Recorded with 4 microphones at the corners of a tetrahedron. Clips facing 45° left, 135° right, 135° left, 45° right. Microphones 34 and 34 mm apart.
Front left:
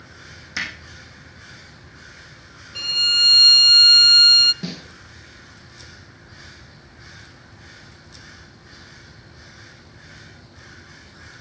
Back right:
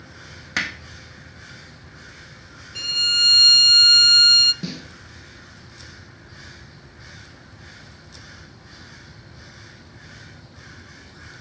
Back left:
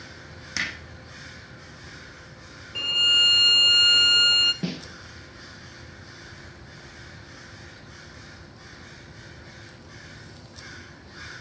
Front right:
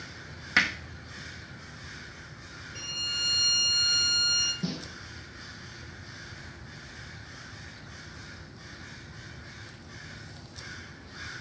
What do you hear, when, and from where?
0.6 s hammering: 100° right, 2.5 m
2.8 s a violin: 125° left, 0.6 m
4.6 s a snare drum: 130° left, 1.8 m